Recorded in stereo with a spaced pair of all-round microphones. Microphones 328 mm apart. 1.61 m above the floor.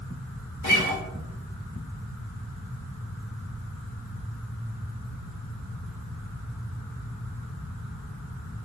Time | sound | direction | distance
0.6 | a guitar | 65° left (ahead or behind) | 0.7 m